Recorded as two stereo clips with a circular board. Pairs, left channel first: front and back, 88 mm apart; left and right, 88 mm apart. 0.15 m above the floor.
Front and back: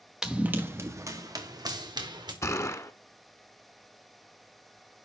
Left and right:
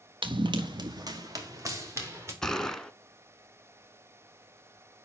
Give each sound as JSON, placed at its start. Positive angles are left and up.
{"t": 0.2, "sound": "running footsteps", "azimuth_deg": -95, "distance_m": 1.6}
{"t": 2.4, "sound": "a gunshot", "azimuth_deg": 10, "distance_m": 1.0}